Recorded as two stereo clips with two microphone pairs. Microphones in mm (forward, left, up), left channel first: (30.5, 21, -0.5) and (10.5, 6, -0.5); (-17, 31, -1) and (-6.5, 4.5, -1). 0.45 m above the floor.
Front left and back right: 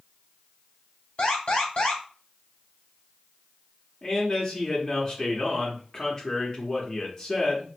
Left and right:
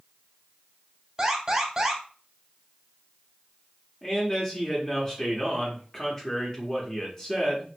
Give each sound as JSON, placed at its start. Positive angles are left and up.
{"t": 1.2, "sound": "an alarm", "azimuth_deg": -5, "distance_m": 1.3}
{"t": 4.0, "sound": "a man speaking", "azimuth_deg": 60, "distance_m": 0.7}